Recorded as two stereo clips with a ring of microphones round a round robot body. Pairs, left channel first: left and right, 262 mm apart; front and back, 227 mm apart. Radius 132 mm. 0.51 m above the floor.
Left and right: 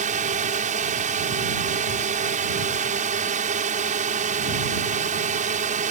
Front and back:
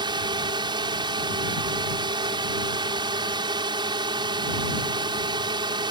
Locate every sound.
0.0 s a drone: 125° right